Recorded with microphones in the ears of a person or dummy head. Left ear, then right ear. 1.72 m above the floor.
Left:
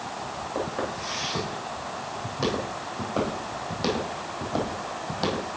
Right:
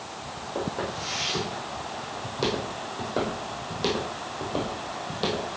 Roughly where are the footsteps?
Centre.